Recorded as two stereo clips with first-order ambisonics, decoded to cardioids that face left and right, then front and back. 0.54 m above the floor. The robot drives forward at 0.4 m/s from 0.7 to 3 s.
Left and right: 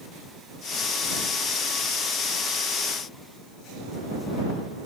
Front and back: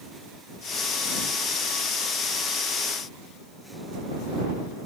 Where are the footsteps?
No footsteps in this recording.